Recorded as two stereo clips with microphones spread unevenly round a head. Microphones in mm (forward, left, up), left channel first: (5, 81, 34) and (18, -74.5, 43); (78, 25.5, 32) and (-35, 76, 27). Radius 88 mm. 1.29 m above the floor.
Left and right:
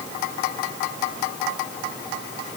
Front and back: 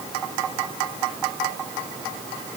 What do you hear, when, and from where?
Only background noise.